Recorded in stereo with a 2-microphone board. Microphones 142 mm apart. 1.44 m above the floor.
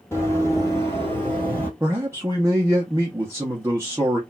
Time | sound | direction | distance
0.1 | running footsteps | 20° left (ahead or behind) | 1.9 m
1.8 | a man speaking | 15° right (ahead or behind) | 0.7 m